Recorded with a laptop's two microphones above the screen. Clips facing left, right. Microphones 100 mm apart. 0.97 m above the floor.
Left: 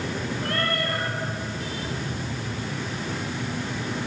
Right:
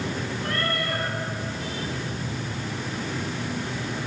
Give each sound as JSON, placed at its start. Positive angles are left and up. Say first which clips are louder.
{"t": 0.4, "sound": "a cat meowing", "louder": "left 1 dB", "side_deg": 55, "distance_m": 5.5}